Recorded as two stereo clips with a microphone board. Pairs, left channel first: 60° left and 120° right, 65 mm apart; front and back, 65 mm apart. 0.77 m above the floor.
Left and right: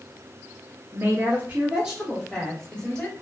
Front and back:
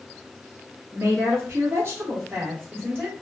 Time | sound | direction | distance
0.9 | a woman speaking | 155° right | 1.2 m